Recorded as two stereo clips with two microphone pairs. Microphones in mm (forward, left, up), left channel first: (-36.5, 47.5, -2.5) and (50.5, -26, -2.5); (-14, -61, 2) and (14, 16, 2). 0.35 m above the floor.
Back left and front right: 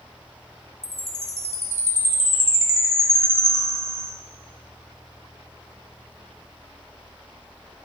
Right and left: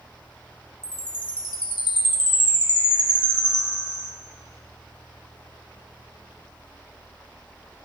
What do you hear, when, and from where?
0.8 s a chime: 105° right, 0.6 m